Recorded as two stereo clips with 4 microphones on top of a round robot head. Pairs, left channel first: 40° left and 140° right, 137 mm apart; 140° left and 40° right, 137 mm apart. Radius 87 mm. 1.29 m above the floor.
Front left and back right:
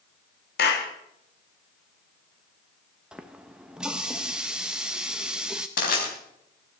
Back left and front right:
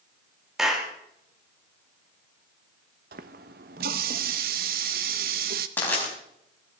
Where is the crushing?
60° left, 4.5 m.